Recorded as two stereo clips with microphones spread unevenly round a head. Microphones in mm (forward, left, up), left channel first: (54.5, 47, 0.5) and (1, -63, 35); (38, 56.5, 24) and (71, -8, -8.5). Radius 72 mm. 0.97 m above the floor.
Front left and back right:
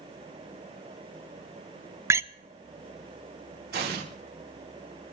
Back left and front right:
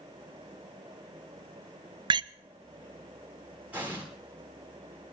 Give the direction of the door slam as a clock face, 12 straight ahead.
2 o'clock.